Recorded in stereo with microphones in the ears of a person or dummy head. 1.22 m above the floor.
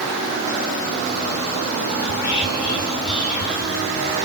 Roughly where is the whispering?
Left.